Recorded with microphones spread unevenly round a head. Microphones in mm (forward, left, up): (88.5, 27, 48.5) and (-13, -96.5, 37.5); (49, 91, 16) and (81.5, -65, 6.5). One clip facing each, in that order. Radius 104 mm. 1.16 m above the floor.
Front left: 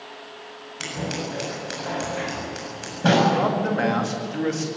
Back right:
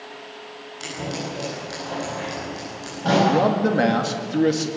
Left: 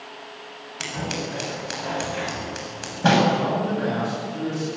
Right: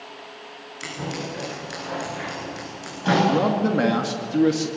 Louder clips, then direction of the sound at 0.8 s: Even, left 1 dB; 90° left.